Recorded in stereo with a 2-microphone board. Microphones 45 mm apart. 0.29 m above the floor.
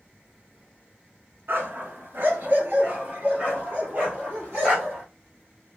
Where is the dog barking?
60° right (ahead or behind), 0.8 m; by 5.0 s 35° right (ahead or behind), 2.5 m.